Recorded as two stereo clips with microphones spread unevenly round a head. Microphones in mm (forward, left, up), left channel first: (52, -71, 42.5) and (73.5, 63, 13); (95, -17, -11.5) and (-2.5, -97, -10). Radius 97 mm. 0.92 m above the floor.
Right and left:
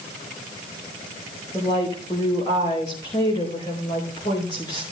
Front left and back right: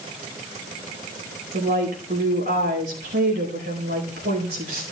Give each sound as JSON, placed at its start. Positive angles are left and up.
{"t": 1.5, "sound": "a woman speaking", "azimuth_deg": -165, "distance_m": 4.5}